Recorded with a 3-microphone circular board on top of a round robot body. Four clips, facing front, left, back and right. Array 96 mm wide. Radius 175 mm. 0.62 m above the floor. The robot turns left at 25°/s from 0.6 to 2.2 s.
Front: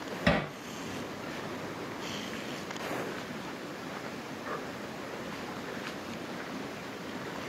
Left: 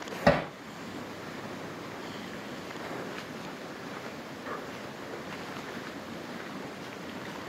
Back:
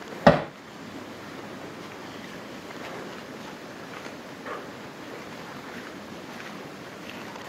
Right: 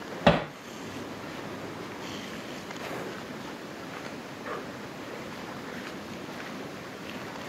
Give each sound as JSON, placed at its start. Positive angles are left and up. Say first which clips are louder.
{"t": 0.3, "sound": "hammering", "louder": "right 2 dB, back 11 dB", "azimuth_deg": -170, "distance_m": 0.7}